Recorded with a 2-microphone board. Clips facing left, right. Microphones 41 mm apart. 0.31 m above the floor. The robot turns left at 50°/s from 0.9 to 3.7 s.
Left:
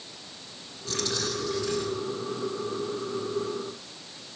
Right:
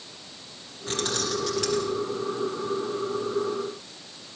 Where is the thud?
I don't hear a thud.